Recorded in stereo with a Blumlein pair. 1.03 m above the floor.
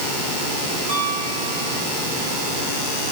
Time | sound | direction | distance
0.9 | a piano | 60° right | 10 m